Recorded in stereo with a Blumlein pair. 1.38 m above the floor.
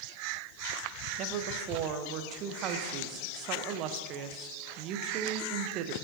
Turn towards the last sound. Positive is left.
turn(degrees=-35)